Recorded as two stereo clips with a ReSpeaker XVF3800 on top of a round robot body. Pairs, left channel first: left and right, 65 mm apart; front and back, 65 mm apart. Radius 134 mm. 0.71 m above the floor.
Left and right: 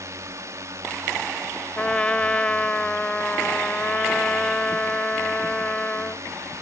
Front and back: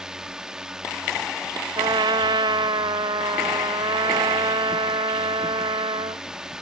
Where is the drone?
105° right.